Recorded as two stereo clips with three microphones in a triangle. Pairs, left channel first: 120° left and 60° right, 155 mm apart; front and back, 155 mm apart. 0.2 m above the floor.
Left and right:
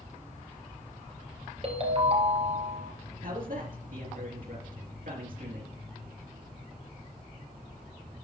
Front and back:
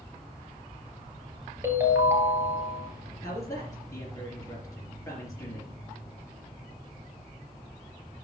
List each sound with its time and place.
1.6 s a ringtone: 110° right, 1.6 m
3.2 s a man speaking: 65° right, 3.5 m